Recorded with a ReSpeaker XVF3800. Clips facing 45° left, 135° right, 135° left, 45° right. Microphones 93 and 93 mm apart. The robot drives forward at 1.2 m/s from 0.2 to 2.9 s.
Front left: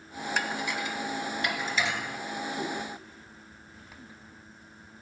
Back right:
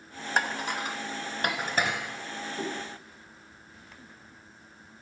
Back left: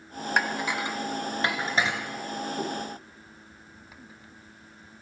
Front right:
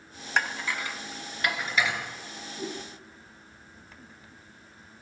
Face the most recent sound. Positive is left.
turn(degrees=170)